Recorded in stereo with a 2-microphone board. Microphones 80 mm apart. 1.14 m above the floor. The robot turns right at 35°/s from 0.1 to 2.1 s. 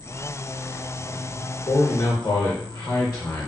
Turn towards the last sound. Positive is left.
turn(degrees=45)  # may be behind; listen again after turning